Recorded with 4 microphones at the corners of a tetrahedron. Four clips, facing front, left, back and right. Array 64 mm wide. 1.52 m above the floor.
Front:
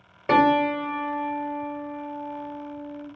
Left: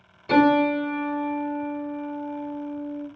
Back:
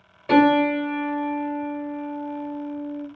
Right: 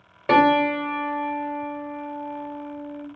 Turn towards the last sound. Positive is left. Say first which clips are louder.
# right 1 dB, back 2 dB
turn(degrees=-65)